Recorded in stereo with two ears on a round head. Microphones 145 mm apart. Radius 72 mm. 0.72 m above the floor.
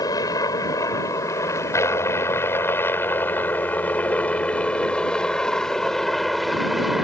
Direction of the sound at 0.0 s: 25° left (ahead or behind).